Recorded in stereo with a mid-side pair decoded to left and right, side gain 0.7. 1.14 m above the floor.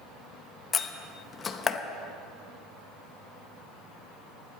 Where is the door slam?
25° left, 1.0 m.